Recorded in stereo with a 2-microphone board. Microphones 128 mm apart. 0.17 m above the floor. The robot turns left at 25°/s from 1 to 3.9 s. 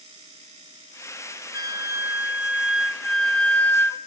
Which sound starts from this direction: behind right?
A flute, at 1.5 s.